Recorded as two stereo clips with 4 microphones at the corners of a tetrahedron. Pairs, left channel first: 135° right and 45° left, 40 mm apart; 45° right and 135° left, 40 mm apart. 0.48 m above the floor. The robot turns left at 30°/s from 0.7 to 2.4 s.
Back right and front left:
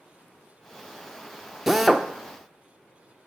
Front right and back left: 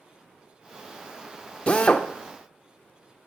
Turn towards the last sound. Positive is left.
turn(degrees=-55)